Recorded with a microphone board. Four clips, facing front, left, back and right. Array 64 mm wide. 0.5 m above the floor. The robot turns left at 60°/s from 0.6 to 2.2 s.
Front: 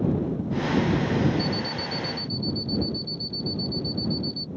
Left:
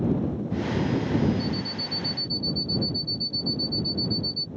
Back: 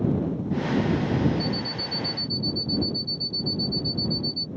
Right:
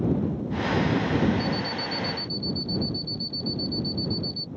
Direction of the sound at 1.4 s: Straight ahead.